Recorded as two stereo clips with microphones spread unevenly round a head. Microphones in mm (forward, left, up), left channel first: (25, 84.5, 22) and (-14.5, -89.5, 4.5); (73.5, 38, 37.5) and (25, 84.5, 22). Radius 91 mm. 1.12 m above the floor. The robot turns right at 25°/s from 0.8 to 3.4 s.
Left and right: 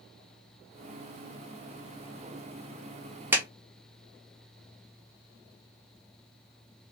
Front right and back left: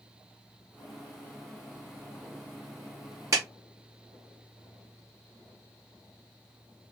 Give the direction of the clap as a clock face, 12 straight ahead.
6 o'clock.